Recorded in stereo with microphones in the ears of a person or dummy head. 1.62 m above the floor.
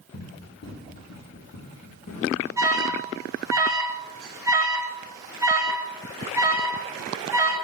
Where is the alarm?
20° right (ahead or behind), 1.6 m.